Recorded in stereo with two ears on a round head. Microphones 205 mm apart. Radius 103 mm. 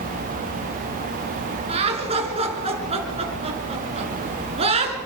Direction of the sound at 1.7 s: 25° right (ahead or behind).